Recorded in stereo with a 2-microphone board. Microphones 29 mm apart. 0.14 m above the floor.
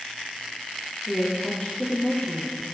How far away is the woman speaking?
About 2.5 m.